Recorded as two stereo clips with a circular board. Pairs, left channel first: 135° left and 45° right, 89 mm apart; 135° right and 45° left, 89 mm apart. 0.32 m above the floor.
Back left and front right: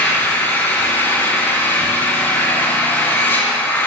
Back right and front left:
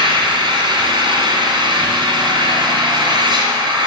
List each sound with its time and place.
0.0 s an engine running: 75° left, 2 m